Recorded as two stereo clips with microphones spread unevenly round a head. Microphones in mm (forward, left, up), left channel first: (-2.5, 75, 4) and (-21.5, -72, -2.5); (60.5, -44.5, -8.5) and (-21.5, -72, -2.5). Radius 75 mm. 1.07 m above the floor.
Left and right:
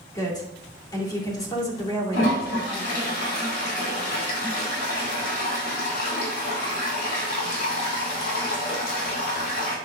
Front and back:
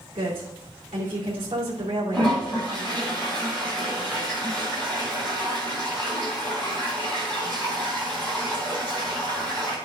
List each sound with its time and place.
0.1 s a woman speaking: 145° left, 2.5 m
2.1 s a toilet flushing: 95° left, 4.5 m